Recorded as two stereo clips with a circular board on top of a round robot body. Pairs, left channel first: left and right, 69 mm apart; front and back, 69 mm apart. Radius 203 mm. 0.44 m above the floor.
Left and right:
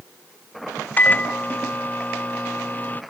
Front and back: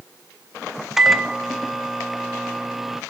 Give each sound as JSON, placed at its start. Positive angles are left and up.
{"t": 1.0, "sound": "a microwave", "azimuth_deg": 100, "distance_m": 0.7}